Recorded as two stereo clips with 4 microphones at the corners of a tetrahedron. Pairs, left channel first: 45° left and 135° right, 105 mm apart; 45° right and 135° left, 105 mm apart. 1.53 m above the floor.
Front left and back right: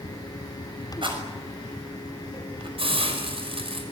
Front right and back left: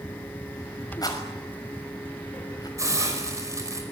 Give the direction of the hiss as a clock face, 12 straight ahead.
5 o'clock.